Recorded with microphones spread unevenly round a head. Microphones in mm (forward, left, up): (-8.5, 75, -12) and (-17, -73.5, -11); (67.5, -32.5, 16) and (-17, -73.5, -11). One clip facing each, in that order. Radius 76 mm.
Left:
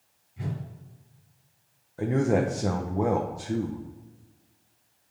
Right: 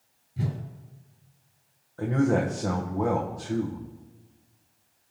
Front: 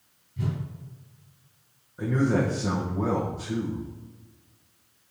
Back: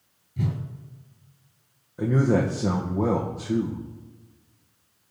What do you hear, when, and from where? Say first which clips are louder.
0.4 s a whoosh: right 3 dB, back 2 dB; 130° right, 2.5 m
2.0 s a man speaking: even, back 2 dB; 160° left, 1.0 m